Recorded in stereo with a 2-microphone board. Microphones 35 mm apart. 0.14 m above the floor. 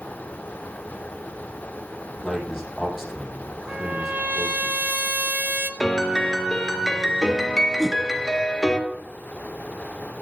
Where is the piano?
5° left (ahead or behind), 2.5 m.